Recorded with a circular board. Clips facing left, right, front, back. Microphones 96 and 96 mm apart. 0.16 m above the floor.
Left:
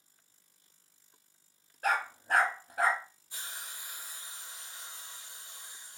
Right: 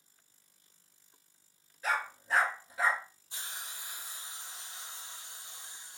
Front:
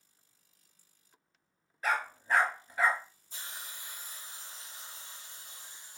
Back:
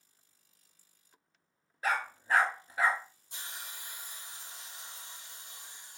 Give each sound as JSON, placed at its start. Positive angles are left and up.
{"t": 1.8, "sound": "a dog barking", "azimuth_deg": 105, "distance_m": 0.9}
{"t": 3.3, "sound": "a hiss", "azimuth_deg": -160, "distance_m": 1.8}